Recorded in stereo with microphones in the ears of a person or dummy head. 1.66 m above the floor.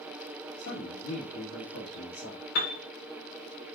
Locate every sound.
0.6 s a man speaking: 80° left, 1.4 m
2.5 s a piano: 55° left (ahead or behind), 0.9 m